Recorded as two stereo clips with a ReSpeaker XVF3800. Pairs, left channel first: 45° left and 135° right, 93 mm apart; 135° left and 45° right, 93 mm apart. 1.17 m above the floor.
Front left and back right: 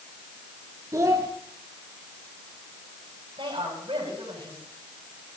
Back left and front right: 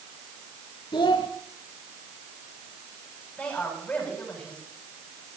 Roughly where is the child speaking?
Behind.